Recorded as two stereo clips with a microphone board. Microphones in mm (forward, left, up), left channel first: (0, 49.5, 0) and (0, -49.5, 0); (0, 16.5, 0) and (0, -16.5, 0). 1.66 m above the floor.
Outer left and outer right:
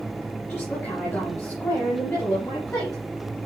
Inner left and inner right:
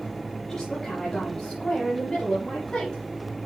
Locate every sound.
0.5 s a woman speaking: 20° left (ahead or behind), 3.5 m; by 3.0 s 40° left (ahead or behind), 5 m